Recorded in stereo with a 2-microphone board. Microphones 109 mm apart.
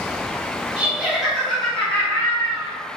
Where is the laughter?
15° right (ahead or behind), 1.5 m; by 2.7 s 35° left (ahead or behind), 1.6 m.